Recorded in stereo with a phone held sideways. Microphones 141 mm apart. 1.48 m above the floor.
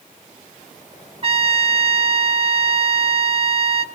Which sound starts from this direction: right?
A trumpet, at 1.2 s.